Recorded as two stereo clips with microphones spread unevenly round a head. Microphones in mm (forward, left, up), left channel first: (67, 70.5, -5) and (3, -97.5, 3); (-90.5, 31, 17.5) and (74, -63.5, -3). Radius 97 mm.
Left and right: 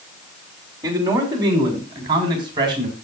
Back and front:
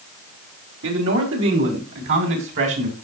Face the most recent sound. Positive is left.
turn(degrees=-45)